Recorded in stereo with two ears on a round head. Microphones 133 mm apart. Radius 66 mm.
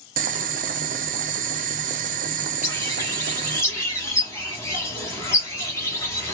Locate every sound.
0.2 s boiling: 55° right (ahead or behind), 0.5 m
2.6 s a bird: 20° left (ahead or behind), 1.2 m